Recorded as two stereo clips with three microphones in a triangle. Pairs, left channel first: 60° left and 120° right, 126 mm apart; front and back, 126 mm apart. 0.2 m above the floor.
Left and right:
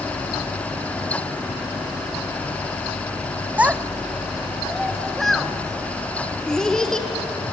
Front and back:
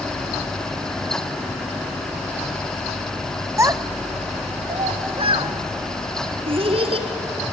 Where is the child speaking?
175° right, 0.6 m; by 7.1 s 145° left, 2 m.